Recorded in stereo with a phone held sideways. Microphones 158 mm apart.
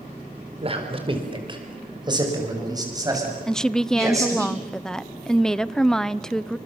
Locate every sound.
0.6 s a man speaking: 40° right (ahead or behind), 4 m; by 4.5 s 20° right (ahead or behind), 9 m
3.5 s a woman speaking: 5° left (ahead or behind), 0.6 m